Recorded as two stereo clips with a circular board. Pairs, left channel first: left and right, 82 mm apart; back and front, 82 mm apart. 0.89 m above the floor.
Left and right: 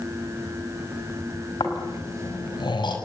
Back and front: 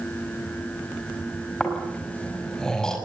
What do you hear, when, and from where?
1.6 s snoring: 100° left, 5.5 m